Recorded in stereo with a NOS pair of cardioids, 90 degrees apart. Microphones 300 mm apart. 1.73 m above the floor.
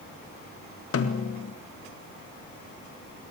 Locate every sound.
0.9 s a snare drum: 50° left, 3.5 m